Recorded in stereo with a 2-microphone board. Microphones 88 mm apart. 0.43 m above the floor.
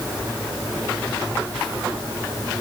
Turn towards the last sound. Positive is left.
No sound to turn to.